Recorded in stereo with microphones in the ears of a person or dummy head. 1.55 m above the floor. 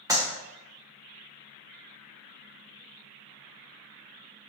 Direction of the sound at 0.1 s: 20° right (ahead or behind).